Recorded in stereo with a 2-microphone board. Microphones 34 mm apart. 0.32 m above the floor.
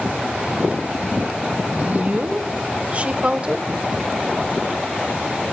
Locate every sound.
1.7 s a woman speaking: 50° right (ahead or behind), 2 m; by 3.7 s 25° right (ahead or behind), 1.4 m